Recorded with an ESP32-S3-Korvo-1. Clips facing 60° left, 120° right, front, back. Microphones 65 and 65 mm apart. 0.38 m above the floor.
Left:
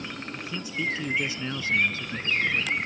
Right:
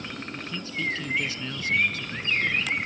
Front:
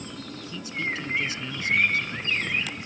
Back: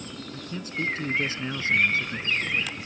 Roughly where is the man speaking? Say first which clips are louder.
Left 1 dB, back 3 dB; behind left.